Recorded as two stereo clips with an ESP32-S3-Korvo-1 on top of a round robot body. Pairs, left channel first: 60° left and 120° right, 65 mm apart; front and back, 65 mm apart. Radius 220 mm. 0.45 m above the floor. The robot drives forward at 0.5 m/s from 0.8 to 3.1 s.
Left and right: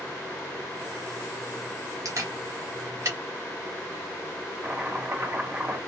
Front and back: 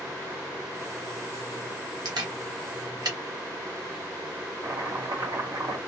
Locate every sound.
2.0 s a camera shutter: 160° right, 0.9 m; by 3.2 s 170° right, 1.4 m
4.6 s chopping: straight behind, 1.5 m